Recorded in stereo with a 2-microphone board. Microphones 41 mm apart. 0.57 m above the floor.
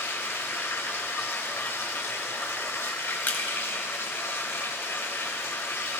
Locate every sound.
0.0 s running water: 75° left (ahead or behind), 1.7 m
3.3 s crushing: 50° left (ahead or behind), 1.7 m